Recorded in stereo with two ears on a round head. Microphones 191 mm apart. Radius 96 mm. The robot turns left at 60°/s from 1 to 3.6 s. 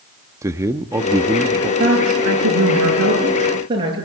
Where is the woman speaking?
50° right, 9 m; by 4.0 s 155° right, 9 m.